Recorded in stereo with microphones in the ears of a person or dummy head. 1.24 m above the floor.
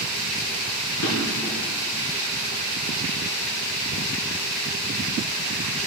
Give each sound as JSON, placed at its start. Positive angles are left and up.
{"t": 1.0, "sound": "a drawer", "side_deg": 65, "distance_m": 3.5}